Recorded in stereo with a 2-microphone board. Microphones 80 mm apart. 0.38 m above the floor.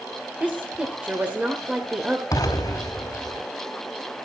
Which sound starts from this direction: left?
An explosion, at 2.3 s.